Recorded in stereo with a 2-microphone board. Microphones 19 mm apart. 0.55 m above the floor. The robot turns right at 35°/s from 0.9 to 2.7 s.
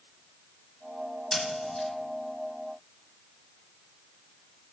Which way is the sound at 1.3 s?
40° left (ahead or behind).